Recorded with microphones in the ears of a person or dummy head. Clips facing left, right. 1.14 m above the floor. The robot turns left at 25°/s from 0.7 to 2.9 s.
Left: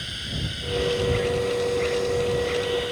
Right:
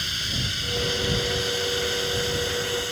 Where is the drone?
65° right; by 2.9 s 120° right.